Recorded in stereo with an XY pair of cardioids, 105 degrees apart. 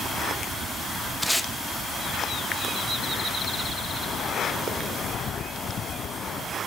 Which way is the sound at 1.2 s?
Straight ahead.